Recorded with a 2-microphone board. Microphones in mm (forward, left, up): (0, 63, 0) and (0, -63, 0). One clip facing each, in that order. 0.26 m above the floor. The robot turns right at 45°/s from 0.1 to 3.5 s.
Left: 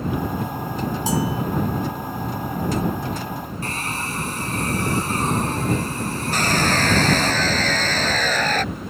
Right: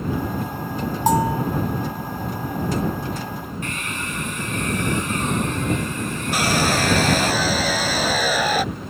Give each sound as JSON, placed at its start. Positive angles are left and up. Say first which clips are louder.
{"t": 1.1, "sound": "a bell", "louder": "right 6 dB", "side_deg": -55}
{"t": 3.6, "sound": "a hair dryer", "louder": "left 1 dB", "side_deg": 35}
{"t": 6.3, "sound": "sawing", "louder": "right 1 dB", "side_deg": -10}